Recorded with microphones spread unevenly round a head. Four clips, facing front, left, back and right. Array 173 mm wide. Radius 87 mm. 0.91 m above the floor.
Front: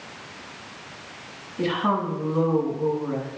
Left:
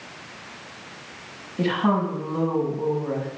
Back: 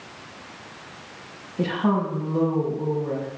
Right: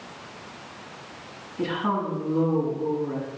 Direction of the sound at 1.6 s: 120° left.